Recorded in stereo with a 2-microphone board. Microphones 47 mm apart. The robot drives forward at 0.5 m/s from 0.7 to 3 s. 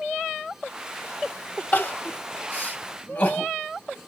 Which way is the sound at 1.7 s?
35° left (ahead or behind).